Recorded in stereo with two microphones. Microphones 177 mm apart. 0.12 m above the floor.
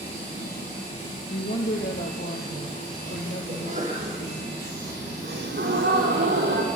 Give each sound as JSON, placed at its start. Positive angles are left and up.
{"t": 1.3, "sound": "a woman speaking", "side_deg": 65, "distance_m": 2.5}
{"t": 3.5, "sound": "a sneeze", "side_deg": -45, "distance_m": 6.0}
{"t": 5.2, "sound": "a gasp", "side_deg": -70, "distance_m": 4.5}